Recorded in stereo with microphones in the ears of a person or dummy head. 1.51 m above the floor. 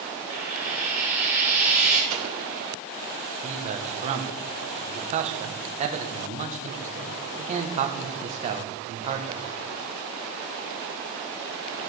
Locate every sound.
0.3 s frying: 45° left (ahead or behind), 3.5 m
2.1 s an explosion: 40° right (ahead or behind), 2 m
3.4 s a man speaking: 40° right (ahead or behind), 1.6 m